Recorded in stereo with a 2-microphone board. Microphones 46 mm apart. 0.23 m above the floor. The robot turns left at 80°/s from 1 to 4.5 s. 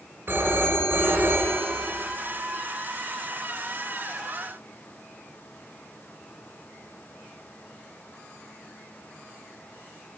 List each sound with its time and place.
0.3 s a phone ringing: 60° right, 1.9 m; by 1.9 s 130° right, 1.9 m